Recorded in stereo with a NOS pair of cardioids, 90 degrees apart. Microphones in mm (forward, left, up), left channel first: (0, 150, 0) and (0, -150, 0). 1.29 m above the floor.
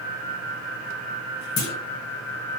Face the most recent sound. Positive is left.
turn(degrees=60)